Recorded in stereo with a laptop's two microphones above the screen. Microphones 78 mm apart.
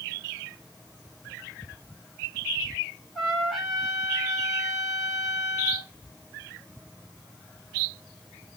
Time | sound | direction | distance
3.1 | a trumpet | centre (ahead or behind) | 1.9 m